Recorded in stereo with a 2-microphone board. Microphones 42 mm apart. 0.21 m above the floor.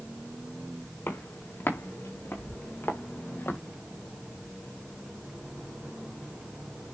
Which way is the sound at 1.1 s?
90° left.